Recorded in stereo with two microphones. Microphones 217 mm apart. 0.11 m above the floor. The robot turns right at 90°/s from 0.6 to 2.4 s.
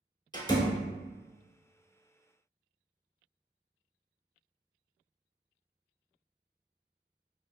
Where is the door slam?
20° left (ahead or behind), 0.8 m; by 0.8 s 15° left (ahead or behind), 0.8 m.